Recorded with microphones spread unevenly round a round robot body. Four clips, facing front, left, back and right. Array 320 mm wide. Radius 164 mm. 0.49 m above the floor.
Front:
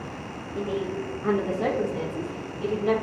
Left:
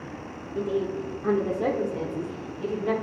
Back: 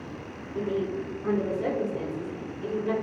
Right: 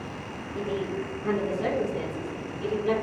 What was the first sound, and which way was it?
A woman speaking, 155° left.